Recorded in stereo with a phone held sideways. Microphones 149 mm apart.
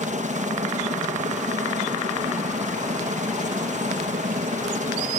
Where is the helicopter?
65° right (ahead or behind).